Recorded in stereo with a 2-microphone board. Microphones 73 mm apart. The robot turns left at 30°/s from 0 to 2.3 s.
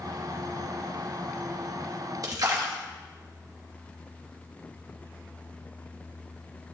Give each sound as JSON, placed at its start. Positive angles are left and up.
{"t": 2.2, "sound": "a splash", "side_deg": -60, "distance_m": 1.4}